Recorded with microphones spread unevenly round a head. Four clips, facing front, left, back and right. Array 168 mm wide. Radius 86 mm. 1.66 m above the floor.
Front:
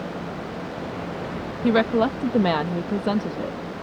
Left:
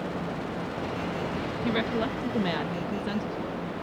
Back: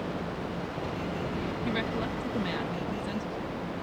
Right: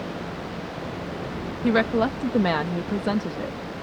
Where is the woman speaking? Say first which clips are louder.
Right 8 dB, front 16 dB; 25° right.